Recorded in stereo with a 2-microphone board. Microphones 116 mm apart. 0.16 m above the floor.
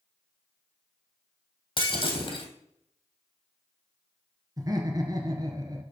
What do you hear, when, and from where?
1.8 s breaking glass: 45° left (ahead or behind), 2.5 m
4.6 s laughter: 35° right (ahead or behind), 2.5 m